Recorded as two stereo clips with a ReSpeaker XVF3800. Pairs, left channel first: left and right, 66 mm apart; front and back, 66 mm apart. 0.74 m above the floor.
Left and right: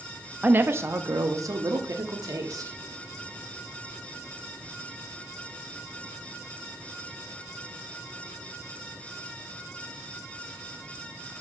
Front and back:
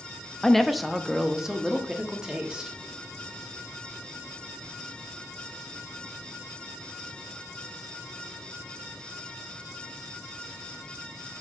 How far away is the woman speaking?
About 0.5 m.